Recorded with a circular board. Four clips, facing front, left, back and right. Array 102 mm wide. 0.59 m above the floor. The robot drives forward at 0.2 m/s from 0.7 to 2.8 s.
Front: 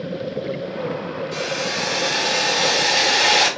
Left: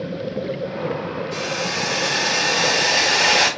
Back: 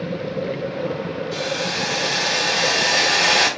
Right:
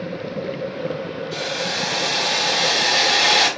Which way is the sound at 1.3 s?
70° left.